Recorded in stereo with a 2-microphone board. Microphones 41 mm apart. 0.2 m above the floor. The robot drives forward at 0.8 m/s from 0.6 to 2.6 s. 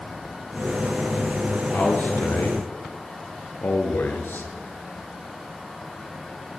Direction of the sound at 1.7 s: 50° left (ahead or behind).